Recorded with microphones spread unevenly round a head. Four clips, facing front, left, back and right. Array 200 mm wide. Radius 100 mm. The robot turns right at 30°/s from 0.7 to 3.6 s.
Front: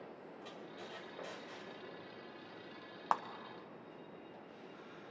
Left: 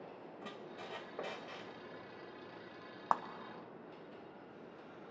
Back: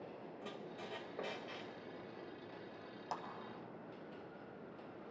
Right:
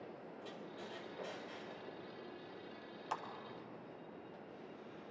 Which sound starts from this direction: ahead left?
A clap, at 3.1 s.